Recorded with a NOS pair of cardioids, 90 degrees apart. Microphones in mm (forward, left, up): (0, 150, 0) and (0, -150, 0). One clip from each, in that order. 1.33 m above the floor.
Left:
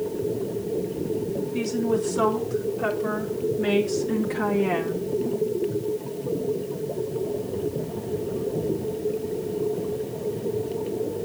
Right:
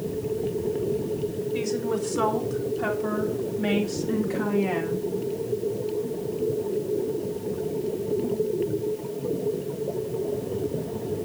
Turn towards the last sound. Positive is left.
turn(degrees=15)